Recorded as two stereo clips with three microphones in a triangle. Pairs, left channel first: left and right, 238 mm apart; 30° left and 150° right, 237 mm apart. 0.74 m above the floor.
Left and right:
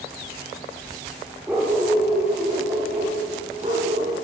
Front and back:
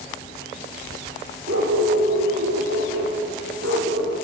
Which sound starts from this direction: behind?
A dog barking, at 1.5 s.